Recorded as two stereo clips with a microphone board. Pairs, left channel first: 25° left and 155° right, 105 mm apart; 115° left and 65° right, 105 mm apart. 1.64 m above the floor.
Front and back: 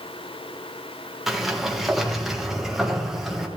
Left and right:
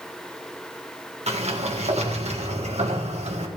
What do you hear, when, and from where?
1.3 s a sliding door: 70° right, 1.7 m